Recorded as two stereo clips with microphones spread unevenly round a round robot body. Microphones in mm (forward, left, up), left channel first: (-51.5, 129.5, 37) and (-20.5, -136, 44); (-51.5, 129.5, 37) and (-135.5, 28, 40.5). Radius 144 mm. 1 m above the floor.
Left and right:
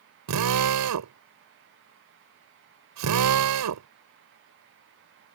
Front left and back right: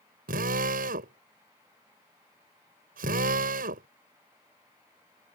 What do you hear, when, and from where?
0.3 s a drill: 105° right